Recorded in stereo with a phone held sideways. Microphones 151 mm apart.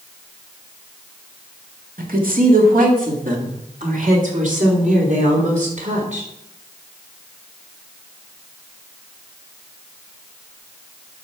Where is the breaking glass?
No breaking glass in this recording.